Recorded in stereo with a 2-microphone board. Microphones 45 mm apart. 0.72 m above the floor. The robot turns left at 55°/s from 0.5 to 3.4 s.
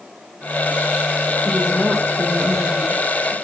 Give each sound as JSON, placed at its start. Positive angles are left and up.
{"t": 1.4, "sound": "a woman speaking", "azimuth_deg": -10, "distance_m": 1.9}